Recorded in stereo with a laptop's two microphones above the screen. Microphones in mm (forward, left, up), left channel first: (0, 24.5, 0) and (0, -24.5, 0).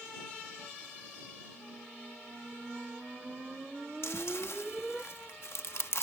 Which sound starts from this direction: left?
Chewing, at 4.0 s.